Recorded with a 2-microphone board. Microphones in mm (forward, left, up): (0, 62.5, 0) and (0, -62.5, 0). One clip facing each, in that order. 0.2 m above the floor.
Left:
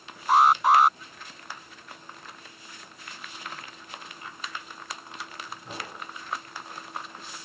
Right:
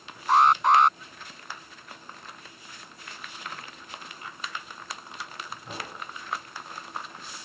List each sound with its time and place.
0.3 s an alarm: 5° left (ahead or behind)